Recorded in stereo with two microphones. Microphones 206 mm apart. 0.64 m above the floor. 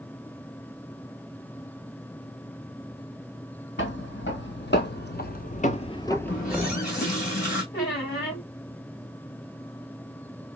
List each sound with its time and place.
3.8 s footsteps: 65° left (ahead or behind), 1.6 m; by 6.8 s 15° right (ahead or behind), 0.7 m
6.3 s a running tap: 45° left (ahead or behind), 2.5 m
7.7 s a squeak: 50° left (ahead or behind), 3 m